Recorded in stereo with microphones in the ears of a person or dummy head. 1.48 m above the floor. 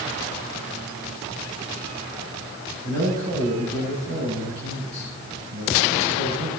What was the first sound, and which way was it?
A man speaking, 50° right (ahead or behind).